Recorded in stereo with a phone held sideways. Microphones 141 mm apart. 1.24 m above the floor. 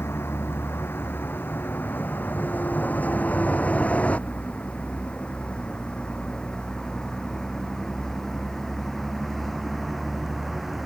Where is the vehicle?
15° left (ahead or behind); by 10.9 s centre (ahead or behind).